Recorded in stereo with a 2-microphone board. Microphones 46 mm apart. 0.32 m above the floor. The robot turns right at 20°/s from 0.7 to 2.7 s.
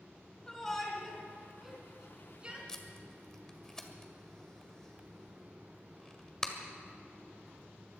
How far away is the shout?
About 4 m.